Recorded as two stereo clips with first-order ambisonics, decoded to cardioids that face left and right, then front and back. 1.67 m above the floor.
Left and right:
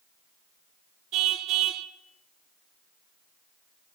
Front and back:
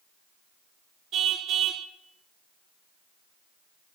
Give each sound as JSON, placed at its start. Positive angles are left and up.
{"t": 1.1, "sound": "a car horn", "azimuth_deg": -130, "distance_m": 2.0}